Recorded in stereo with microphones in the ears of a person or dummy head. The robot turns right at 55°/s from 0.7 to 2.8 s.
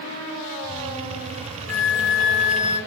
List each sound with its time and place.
1.7 s a flute: 110° left, 1.2 m; by 2.8 s 170° left, 1.2 m